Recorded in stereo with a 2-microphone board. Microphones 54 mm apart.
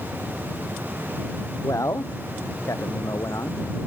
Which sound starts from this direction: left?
A man speaking, at 1.6 s.